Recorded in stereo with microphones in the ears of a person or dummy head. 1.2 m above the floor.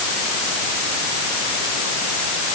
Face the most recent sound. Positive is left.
No sound to turn to.